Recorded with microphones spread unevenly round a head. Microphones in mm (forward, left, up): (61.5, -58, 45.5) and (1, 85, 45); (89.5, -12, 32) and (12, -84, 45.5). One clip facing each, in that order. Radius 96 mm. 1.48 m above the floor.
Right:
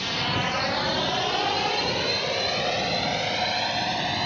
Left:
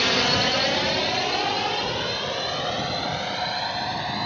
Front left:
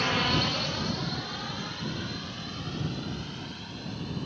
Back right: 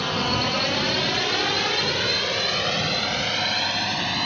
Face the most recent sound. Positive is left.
turn(degrees=-140)